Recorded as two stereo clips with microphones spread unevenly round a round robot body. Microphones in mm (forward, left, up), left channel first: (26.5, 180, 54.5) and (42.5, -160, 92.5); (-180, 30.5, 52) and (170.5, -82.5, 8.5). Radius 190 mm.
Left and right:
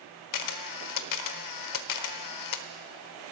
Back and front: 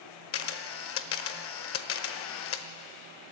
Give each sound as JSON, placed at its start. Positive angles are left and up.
{"t": 0.3, "sound": "a camera shutter", "azimuth_deg": 105, "distance_m": 1.1}